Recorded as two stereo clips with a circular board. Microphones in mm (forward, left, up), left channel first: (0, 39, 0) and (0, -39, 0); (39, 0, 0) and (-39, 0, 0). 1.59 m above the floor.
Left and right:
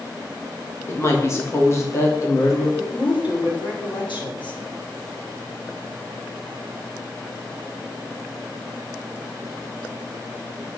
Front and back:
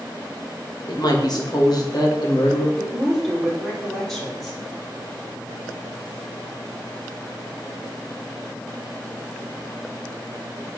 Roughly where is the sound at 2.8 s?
Left.